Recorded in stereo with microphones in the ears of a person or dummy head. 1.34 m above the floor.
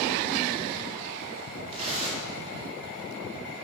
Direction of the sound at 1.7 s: 35° right (ahead or behind).